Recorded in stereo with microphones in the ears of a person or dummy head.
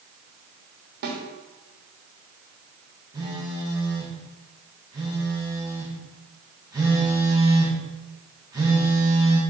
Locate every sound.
1.0 s a snare drum: 65° right (ahead or behind), 3 m
3.1 s a phone buzzing: 20° right (ahead or behind), 2.5 m